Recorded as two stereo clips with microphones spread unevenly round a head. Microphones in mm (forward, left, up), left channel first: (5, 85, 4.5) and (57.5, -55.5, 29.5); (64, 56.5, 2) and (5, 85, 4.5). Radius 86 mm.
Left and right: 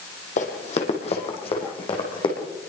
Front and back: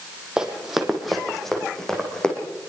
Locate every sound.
0.4 s running footsteps: 75° left, 3.5 m; by 2.4 s 50° left, 6 m